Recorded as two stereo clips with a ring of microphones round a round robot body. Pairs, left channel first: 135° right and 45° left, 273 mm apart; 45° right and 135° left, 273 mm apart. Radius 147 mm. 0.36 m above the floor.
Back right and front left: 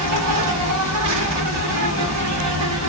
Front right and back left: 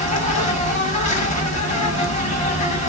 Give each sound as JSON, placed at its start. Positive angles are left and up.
{"t": 0.0, "sound": "an insect", "azimuth_deg": 20, "distance_m": 1.4}